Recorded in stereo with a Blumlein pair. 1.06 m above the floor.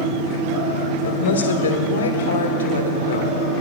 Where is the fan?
35° right, 2 m.